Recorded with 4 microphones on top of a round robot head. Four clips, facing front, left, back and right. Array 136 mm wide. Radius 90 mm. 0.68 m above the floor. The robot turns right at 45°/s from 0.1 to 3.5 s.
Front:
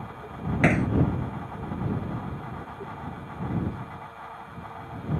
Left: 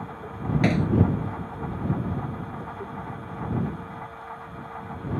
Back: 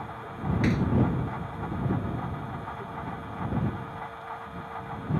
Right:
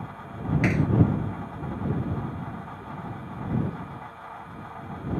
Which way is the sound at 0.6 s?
30° left.